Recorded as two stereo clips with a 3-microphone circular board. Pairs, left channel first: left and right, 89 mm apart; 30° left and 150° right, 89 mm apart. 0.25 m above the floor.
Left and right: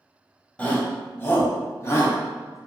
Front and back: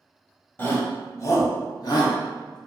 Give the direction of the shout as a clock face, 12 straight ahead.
11 o'clock.